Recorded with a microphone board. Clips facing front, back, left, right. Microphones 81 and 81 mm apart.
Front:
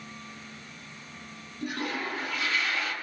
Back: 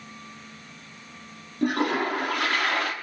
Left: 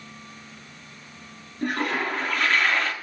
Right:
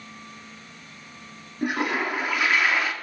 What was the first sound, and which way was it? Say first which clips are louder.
A toilet flushing: back 9 dB, right 1 dB; 170° right.